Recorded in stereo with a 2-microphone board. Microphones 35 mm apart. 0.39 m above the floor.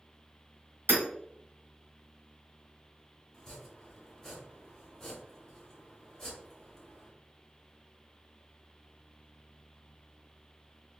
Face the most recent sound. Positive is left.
turn(degrees=10)  # may be behind; listen again after turning